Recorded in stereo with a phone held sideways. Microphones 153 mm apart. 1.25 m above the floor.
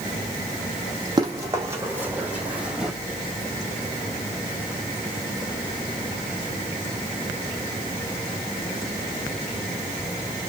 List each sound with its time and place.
1.2 s running footsteps: 25° right (ahead or behind), 3 m; by 2.9 s 5° right (ahead or behind), 3 m